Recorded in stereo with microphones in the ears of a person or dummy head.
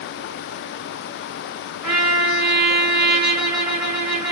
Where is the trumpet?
5° right (ahead or behind), 1.5 m.